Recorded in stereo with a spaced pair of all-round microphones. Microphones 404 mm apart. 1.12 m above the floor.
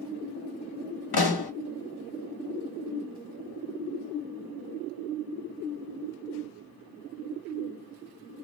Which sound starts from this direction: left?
A pop, at 1.1 s.